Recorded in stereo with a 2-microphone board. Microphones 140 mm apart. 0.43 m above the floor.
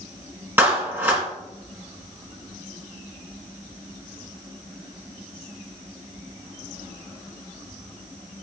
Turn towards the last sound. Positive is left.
turn(degrees=-15)  # may be behind; listen again after turning